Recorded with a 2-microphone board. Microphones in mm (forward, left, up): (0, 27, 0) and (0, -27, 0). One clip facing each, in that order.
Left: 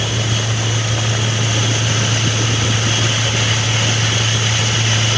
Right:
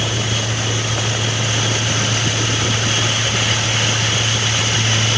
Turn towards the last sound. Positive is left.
No sound to turn to.